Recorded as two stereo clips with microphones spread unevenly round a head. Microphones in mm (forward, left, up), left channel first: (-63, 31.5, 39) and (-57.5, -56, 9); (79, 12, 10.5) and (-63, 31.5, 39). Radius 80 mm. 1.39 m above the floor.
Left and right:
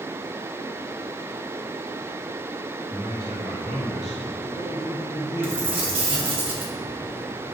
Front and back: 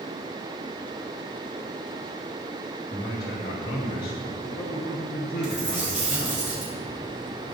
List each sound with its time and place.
2.9 s a man speaking: 15° right, 3.5 m; by 6.4 s 45° right, 6.5 m
5.4 s a dropped coin: 105° right, 4 m